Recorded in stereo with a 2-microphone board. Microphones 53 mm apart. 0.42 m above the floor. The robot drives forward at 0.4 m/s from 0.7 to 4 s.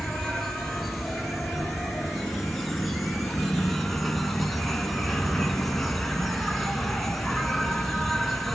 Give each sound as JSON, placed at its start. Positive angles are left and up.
{"t": 0.0, "sound": "an insect", "side_deg": 5, "distance_m": 3.0}